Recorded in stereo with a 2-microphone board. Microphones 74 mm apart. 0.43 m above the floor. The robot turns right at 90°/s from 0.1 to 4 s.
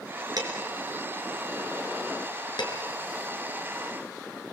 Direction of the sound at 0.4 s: 60° right (ahead or behind).